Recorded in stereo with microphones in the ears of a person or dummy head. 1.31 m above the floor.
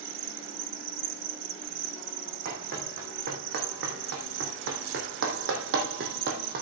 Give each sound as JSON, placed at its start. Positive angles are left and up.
{"t": 0.0, "sound": "an insect", "side_deg": -70, "distance_m": 1.5}
{"t": 2.5, "sound": "running footsteps", "side_deg": -55, "distance_m": 4.0}